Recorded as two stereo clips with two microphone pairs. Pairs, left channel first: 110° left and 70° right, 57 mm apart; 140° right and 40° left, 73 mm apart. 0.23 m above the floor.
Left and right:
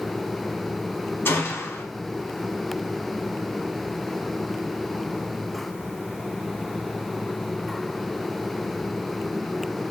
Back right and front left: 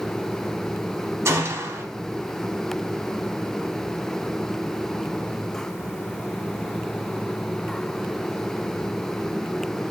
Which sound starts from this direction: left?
A gunshot, at 1.2 s.